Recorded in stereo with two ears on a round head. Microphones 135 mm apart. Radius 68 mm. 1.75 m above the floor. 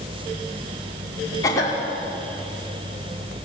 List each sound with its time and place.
1.4 s a cough: 20° left (ahead or behind), 5.5 m